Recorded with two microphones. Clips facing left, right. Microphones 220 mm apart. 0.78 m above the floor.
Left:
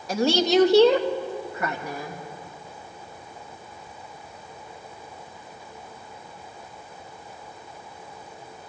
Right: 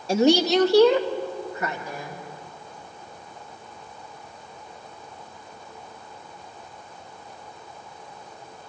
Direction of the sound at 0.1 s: 30° right (ahead or behind).